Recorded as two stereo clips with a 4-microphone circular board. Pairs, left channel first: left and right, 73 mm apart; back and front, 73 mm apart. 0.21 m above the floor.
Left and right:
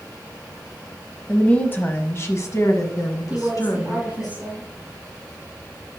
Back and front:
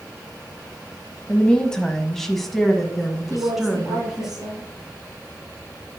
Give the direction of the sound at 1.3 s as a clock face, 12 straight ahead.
8 o'clock.